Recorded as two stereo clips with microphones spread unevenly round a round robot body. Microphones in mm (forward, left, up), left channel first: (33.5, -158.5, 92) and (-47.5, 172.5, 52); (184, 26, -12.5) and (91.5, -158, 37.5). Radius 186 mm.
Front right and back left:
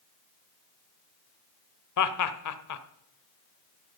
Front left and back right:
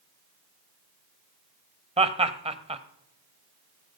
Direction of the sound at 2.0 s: 50° right.